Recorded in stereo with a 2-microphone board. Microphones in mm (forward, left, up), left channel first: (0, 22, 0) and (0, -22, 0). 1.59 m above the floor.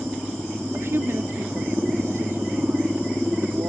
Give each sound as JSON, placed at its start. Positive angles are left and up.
{"t": 0.7, "sound": "a woman speaking", "side_deg": -70}